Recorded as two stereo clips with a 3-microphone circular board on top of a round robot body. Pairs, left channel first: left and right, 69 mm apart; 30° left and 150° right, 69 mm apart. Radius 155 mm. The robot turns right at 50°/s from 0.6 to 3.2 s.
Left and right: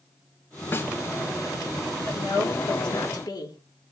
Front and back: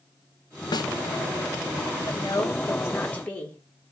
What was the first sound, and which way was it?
A snare drum, 30° left.